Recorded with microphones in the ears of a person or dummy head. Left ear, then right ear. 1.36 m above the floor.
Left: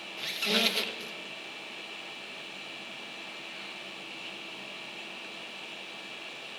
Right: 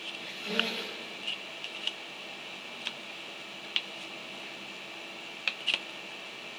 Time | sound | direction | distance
0.2 | a squeak | 65° left (ahead or behind) | 0.9 m